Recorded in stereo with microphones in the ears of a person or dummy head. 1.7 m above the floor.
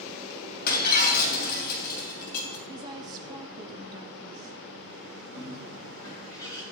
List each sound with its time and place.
0.7 s breaking glass: 55° left (ahead or behind), 3 m
2.7 s a woman speaking: 20° right (ahead or behind), 1.9 m
5.3 s a bird: 25° left (ahead or behind), 6.5 m